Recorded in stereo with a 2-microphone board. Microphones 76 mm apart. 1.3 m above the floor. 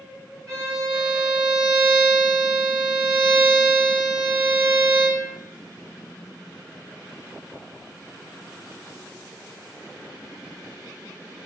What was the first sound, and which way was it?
A violin, 50° right (ahead or behind).